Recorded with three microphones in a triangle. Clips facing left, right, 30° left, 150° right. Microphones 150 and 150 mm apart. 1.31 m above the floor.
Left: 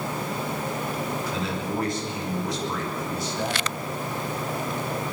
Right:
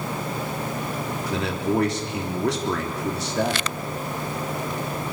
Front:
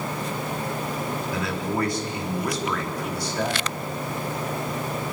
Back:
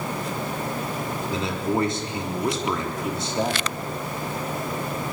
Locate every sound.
1.3 s a man speaking: 85° right, 3.5 m